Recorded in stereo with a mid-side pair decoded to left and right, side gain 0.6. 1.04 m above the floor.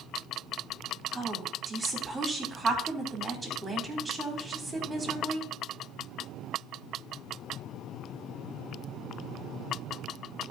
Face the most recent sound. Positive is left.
turn(degrees=-15)